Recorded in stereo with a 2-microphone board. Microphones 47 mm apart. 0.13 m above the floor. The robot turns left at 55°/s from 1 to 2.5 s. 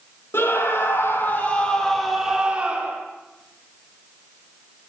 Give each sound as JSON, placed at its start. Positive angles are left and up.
{"t": 0.3, "sound": "a scream", "azimuth_deg": 60, "distance_m": 5.0}